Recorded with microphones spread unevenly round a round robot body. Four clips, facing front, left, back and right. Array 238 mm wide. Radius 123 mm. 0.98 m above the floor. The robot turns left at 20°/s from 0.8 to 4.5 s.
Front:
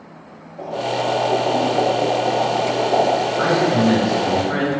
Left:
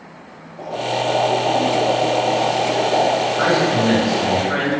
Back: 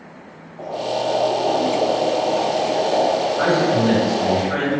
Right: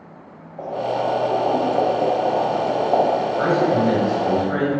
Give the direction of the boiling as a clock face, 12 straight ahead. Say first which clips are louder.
Even, front 1 dB; 2 o'clock.